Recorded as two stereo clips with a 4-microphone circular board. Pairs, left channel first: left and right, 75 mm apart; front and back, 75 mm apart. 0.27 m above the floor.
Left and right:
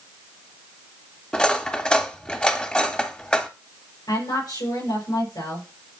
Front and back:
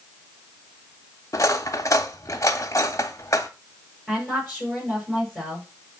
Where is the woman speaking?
90° left, 6 m.